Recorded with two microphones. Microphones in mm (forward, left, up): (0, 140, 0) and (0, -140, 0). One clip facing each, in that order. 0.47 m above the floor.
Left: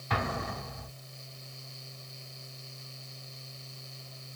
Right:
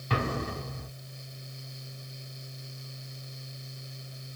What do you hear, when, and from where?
0.1 s an explosion: 35° right (ahead or behind), 0.8 m